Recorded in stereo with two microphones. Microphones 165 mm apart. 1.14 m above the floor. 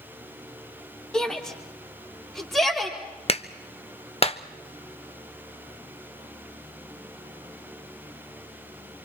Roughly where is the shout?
Centre.